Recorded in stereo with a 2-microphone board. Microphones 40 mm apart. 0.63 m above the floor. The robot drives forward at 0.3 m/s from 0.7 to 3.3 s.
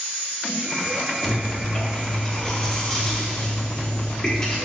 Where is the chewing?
20° left (ahead or behind), 1.2 m; by 4.5 s 15° left (ahead or behind), 1.5 m.